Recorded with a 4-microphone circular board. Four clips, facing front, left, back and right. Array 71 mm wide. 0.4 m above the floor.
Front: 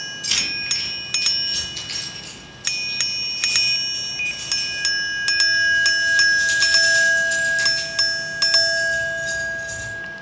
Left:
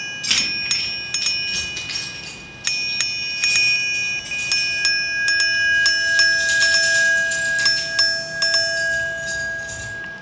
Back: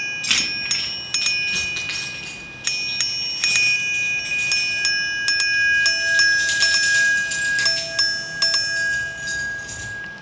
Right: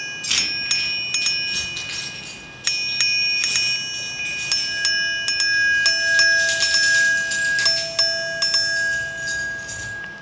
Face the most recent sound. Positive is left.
turn(degrees=-140)